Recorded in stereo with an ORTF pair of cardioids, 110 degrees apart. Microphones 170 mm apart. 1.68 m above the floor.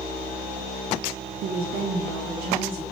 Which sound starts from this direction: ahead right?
A woman speaking, at 1.4 s.